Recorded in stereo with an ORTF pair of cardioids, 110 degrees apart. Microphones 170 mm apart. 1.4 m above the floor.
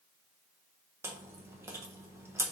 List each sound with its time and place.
1.0 s chewing: 15° right, 1.0 m